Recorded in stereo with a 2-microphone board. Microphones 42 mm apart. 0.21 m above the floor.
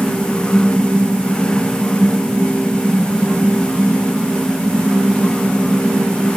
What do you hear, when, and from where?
Only background noise.